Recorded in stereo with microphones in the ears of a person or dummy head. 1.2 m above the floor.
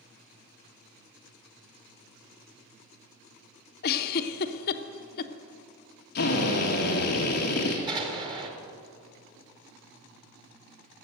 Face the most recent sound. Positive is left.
turn(degrees=-25)  # may be behind; listen again after turning